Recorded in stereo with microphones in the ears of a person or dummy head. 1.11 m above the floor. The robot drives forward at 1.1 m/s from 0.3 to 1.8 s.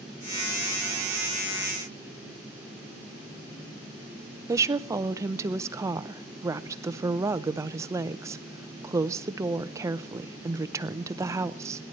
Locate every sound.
4.5 s a woman speaking: 15° right (ahead or behind), 0.5 m